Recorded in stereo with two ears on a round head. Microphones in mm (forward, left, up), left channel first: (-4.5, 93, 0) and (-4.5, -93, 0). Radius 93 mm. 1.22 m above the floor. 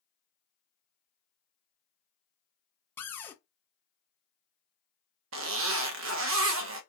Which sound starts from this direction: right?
A zipper, at 5.3 s.